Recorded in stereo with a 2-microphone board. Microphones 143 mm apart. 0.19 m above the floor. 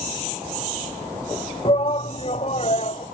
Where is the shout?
40° left (ahead or behind); by 3.0 s 50° left (ahead or behind).